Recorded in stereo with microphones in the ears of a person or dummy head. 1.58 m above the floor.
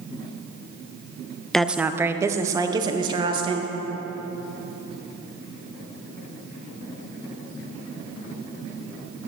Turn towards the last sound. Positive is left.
turn(degrees=-30)  # may be behind; listen again after turning